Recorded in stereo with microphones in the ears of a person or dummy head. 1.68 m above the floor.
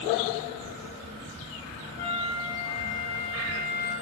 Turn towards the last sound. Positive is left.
turn(degrees=25)  # may be behind; listen again after turning